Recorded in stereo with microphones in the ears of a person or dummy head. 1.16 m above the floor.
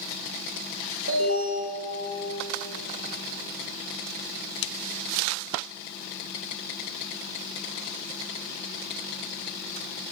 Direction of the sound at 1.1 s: 65° right (ahead or behind).